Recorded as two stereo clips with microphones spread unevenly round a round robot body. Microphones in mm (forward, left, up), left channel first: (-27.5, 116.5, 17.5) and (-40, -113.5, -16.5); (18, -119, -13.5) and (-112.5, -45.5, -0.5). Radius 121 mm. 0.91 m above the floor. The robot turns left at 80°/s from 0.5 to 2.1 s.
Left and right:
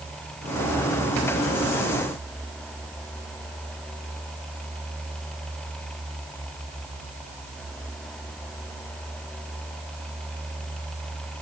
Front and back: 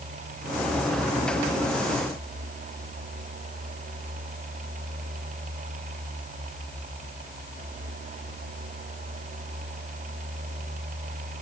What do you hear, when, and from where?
Only background noise.